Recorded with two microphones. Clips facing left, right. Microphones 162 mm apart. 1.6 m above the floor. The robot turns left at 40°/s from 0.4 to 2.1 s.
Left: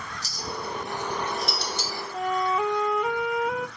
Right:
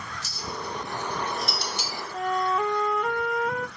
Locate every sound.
0.2 s a clink: 40° left (ahead or behind), 1.6 m; by 2.0 s 25° right (ahead or behind), 1.6 m
2.1 s a flute: 5° left (ahead or behind), 0.6 m